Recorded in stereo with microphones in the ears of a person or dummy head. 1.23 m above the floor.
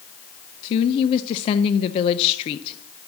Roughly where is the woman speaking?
Left.